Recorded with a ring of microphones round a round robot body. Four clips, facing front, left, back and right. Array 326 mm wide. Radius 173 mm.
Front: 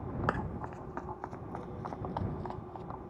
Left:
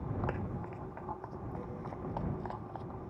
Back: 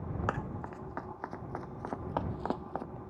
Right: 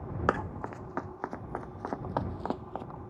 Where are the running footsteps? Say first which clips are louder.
Right 8 dB, front 1 dB; 85° right; by 2.9 s 150° right.